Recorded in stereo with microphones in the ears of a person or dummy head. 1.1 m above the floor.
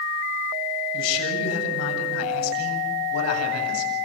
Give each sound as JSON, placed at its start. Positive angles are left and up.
{"t": 0.9, "sound": "a man speaking", "side_deg": 75, "distance_m": 8.0}